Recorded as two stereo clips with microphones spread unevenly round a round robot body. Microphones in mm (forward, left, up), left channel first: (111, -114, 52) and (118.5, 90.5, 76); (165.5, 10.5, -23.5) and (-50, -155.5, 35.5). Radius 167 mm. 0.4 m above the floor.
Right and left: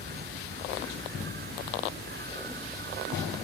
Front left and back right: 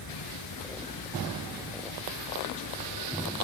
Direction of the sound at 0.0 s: 50° left.